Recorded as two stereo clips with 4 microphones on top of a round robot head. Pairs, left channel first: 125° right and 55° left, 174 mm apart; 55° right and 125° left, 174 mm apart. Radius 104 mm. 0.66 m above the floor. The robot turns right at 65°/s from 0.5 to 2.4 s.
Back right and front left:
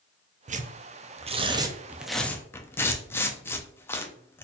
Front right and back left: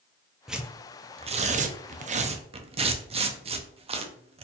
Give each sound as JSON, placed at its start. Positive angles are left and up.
{"t": 0.5, "sound": "tearing paper", "azimuth_deg": 40, "distance_m": 0.5}